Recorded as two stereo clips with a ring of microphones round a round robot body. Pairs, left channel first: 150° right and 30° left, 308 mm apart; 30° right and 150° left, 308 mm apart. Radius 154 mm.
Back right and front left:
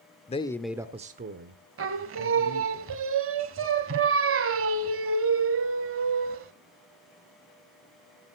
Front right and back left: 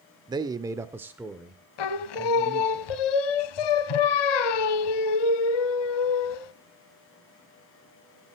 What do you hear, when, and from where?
0.3 s a man speaking: 160° right, 0.8 m; by 2.8 s 55° left, 1.9 m
1.8 s singing: 20° right, 0.8 m